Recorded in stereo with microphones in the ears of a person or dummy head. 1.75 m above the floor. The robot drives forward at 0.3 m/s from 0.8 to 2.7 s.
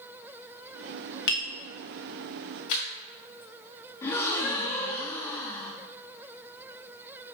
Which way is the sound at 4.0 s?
15° left (ahead or behind).